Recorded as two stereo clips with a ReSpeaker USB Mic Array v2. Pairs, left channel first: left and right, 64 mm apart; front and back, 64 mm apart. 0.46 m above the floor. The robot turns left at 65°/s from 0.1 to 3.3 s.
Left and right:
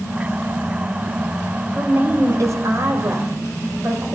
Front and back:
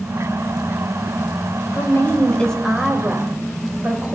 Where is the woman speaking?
25° right, 2 m; by 4.2 s 130° right, 2 m.